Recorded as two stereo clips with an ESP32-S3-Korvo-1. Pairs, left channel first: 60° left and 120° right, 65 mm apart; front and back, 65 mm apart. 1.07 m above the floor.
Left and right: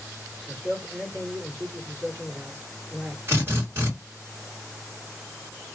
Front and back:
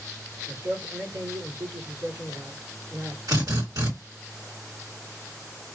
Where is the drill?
170° right, 2 m.